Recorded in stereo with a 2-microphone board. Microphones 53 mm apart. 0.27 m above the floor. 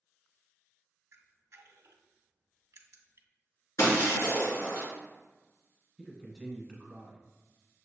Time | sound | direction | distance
1.1 | a camera shutter | 60° right (ahead or behind) | 0.5 m
3.8 | breaking glass | 65° left (ahead or behind) | 2.0 m
6.0 | a man speaking | centre (ahead or behind) | 1.1 m